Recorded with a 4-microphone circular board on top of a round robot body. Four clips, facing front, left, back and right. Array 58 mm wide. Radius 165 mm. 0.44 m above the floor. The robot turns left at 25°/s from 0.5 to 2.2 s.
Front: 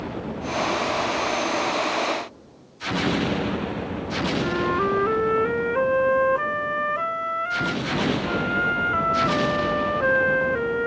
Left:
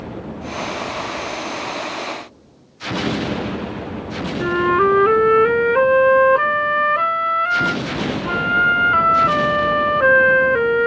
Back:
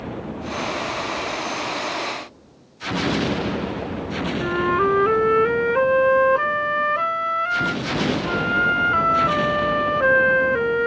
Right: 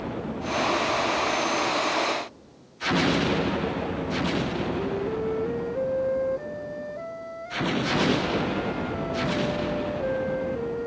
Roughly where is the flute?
Left.